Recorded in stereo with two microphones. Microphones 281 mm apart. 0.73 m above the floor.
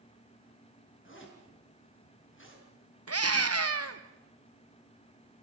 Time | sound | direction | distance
1.1 | a zipper | 45° left (ahead or behind) | 6.5 m
3.1 | a scream | 60° right (ahead or behind) | 1.3 m